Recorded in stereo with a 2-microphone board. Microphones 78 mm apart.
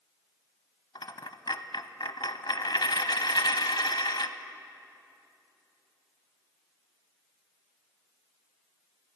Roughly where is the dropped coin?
Left.